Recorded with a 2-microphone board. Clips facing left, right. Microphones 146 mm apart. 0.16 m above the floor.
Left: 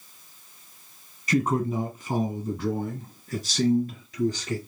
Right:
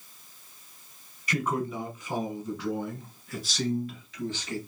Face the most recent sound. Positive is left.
turn(degrees=35)  # may be behind; listen again after turning